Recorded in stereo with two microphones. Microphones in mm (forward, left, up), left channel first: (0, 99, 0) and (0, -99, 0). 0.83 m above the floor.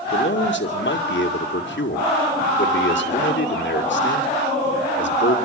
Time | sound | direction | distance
0.1 | a man speaking | 70° left (ahead or behind) | 2.5 m